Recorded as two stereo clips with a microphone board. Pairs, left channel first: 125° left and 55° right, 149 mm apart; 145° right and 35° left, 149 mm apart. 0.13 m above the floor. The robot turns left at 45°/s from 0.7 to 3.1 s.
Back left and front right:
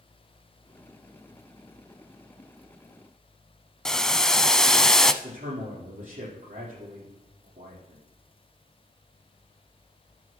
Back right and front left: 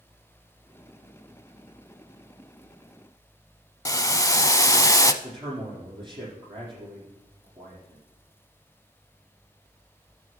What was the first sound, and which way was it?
Boiling, 155° right.